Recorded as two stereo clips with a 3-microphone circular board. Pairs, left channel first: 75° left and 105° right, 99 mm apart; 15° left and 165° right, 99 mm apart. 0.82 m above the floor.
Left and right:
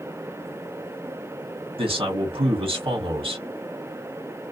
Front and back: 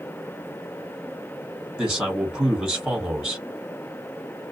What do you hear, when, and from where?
1.8 s a man speaking: 90° right, 1.6 m